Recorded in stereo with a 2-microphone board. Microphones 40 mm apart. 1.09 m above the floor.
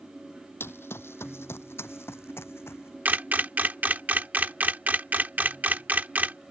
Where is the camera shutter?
45° right (ahead or behind).